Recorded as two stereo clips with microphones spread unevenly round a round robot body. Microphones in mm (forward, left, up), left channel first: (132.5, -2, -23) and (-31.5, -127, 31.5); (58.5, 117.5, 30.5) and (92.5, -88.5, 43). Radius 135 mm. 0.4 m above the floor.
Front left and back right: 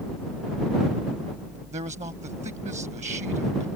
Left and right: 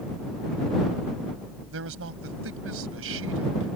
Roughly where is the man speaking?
Right.